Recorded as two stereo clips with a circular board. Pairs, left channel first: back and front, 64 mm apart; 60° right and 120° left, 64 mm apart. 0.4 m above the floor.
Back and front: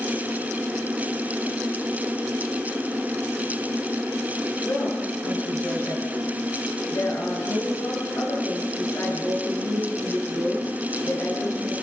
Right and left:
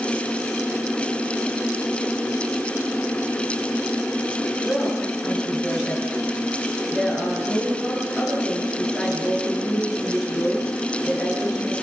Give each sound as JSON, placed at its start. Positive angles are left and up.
{"t": 4.6, "sound": "a woman speaking", "azimuth_deg": -145, "distance_m": 7.0}